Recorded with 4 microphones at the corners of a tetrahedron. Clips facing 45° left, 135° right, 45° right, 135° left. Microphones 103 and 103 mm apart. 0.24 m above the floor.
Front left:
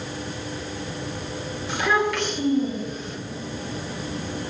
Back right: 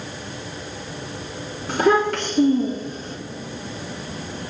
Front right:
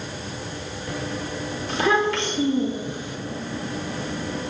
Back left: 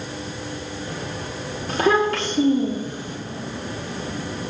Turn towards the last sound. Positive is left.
turn(degrees=180)